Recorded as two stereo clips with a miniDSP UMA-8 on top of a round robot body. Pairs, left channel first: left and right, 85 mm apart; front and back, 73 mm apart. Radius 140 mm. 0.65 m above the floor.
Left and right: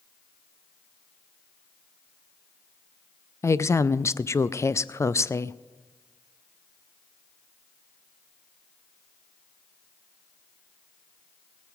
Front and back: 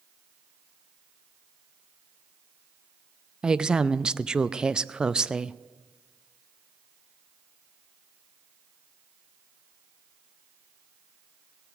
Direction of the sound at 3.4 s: 110° left.